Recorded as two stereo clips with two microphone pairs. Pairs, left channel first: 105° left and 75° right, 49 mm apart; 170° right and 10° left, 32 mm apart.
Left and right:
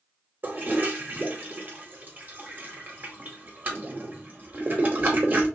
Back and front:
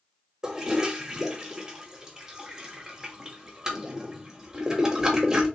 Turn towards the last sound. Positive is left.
turn(degrees=-50)